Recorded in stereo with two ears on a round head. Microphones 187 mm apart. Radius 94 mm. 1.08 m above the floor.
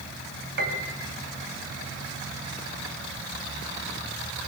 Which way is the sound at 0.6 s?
50° right (ahead or behind).